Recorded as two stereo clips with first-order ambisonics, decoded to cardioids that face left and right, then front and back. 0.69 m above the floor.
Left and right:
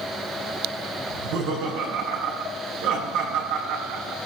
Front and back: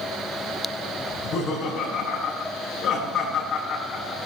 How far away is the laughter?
About 7.5 m.